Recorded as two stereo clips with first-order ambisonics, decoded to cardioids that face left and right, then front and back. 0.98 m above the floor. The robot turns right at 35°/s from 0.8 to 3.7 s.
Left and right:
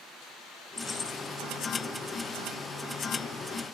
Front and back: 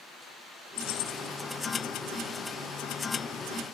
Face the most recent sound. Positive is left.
turn(degrees=115)